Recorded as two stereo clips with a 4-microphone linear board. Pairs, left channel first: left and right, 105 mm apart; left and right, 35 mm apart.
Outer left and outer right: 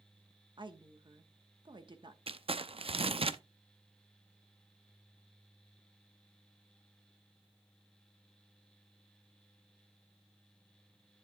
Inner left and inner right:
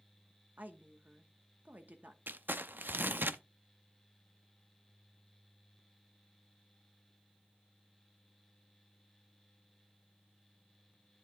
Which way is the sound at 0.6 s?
45° right (ahead or behind).